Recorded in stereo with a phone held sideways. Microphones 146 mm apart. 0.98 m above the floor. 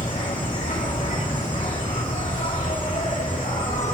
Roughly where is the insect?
Left.